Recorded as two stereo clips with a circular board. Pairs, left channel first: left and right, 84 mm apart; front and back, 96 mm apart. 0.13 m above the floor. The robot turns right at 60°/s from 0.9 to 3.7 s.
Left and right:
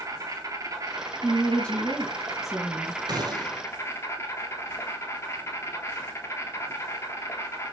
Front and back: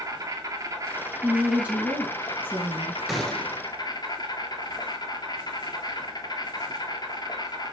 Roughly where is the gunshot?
Right.